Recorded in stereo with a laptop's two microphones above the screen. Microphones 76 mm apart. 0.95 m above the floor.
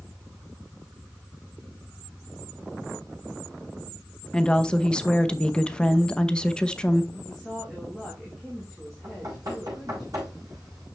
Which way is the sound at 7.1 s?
Centre (ahead or behind).